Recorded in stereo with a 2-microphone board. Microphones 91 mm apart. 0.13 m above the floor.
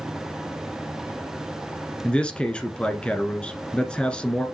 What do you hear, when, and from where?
2.0 s a man speaking: 10° left (ahead or behind), 1.5 m